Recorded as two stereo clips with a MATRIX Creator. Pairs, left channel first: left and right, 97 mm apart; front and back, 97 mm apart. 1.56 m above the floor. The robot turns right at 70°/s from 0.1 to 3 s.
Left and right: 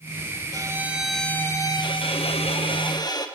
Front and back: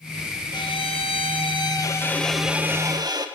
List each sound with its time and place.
0.5 s a violin: 40° right, 1.9 m; by 3.3 s 135° left, 1.9 m